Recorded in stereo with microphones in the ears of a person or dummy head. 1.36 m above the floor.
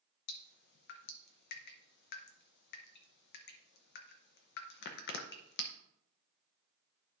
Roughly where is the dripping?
Left.